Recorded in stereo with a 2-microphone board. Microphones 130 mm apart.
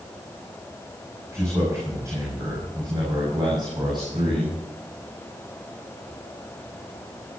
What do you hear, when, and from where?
1.3 s a man speaking: 20° right (ahead or behind), 7.5 m; by 4.6 s 40° right (ahead or behind), 7 m